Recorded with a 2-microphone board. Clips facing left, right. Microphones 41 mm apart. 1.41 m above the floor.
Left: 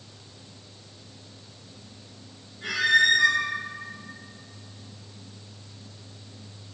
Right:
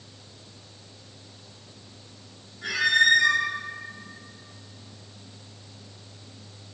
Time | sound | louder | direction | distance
2.6 | a squeak | even | 40° left (ahead or behind) | 1.7 m